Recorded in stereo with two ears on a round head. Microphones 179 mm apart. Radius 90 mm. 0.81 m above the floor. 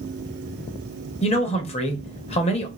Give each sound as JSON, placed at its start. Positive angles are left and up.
{"t": 1.2, "sound": "a man speaking", "side_deg": 35, "distance_m": 0.9}